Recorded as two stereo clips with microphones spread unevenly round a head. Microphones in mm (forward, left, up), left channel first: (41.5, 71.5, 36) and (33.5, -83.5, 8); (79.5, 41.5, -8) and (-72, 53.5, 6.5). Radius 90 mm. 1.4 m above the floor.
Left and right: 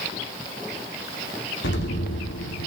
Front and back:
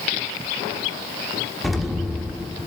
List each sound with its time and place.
1.6 s an explosion: 85° left, 2 m